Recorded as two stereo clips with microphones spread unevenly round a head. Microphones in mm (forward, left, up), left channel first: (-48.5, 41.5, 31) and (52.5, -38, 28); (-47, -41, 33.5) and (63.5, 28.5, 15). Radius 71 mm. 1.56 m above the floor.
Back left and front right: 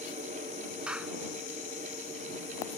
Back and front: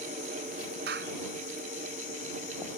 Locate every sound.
0.9 s a clap: 45° left